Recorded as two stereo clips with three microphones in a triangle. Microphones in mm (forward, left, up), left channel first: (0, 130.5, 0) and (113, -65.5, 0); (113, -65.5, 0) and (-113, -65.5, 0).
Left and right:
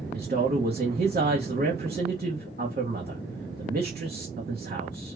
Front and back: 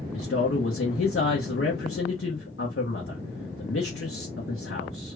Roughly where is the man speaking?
Ahead.